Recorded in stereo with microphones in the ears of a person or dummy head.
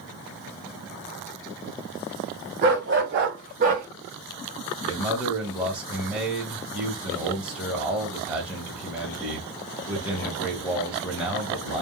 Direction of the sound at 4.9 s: 5° right (ahead or behind).